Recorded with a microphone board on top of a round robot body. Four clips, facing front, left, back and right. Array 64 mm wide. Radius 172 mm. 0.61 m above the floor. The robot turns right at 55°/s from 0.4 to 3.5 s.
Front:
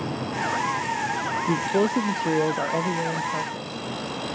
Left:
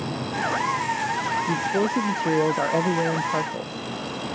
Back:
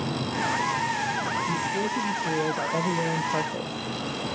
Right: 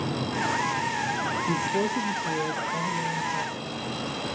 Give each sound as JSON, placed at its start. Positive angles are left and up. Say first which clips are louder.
{"t": 1.5, "sound": "a man speaking", "louder": "left 2 dB, front 5 dB", "azimuth_deg": 5, "distance_m": 0.9}